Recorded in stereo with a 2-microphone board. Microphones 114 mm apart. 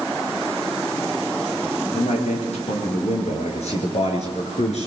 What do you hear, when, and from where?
1.9 s a man speaking: 80° left, 7.5 m; by 4.9 s 75° left (ahead or behind), 5.5 m